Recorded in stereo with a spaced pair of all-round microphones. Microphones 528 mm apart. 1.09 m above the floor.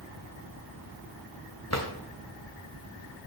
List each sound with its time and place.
1.7 s a drawer: 30° left (ahead or behind), 1.6 m